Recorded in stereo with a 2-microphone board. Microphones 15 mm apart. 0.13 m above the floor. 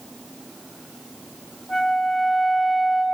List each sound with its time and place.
1.7 s a flute: 20° left (ahead or behind), 1.4 m